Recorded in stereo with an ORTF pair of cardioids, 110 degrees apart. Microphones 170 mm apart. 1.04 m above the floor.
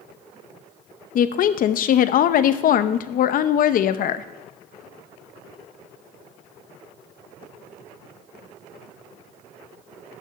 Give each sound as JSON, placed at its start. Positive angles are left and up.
{"t": 1.1, "sound": "a woman speaking", "azimuth_deg": 55, "distance_m": 0.7}